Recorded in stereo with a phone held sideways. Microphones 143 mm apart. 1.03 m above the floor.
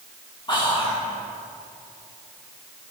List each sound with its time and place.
0.5 s whispering: 30° left (ahead or behind), 1.4 m